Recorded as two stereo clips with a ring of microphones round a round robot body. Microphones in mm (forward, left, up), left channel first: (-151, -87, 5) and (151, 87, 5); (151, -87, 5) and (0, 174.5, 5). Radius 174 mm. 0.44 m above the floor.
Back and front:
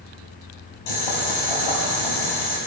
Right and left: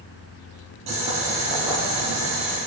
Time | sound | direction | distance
0.9 | boiling | 165° right | 6 m